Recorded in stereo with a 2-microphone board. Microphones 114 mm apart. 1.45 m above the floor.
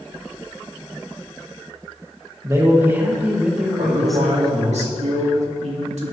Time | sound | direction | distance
2.4 | a man speaking | 30° right (ahead or behind) | 2 m
3.8 | a man speaking | 75° right (ahead or behind) | 2.5 m